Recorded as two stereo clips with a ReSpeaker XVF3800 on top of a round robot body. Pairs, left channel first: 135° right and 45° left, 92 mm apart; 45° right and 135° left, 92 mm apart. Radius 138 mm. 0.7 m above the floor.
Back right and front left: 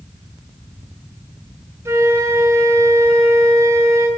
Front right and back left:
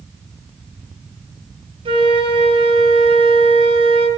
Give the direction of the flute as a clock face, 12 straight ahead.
8 o'clock.